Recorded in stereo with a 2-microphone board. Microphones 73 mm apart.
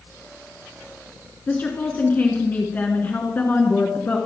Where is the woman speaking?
25° left (ahead or behind), 1.4 m.